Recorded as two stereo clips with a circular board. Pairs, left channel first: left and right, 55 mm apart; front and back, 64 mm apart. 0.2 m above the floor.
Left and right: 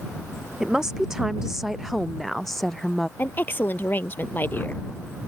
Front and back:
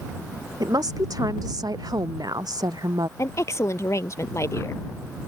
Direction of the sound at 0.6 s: 170° right.